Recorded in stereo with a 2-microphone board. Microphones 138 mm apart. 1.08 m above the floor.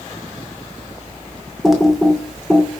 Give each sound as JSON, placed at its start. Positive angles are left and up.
{"t": 1.6, "sound": "typing on a keyboard", "side_deg": 0, "distance_m": 2.5}